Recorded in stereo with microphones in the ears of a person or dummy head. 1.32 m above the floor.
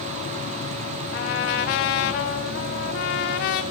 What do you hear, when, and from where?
0.0 s an insect: 50° left (ahead or behind), 4.5 m
1.1 s a trumpet: 45° left (ahead or behind), 0.6 m